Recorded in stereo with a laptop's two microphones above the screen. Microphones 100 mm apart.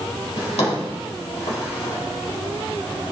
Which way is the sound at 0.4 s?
75° left (ahead or behind).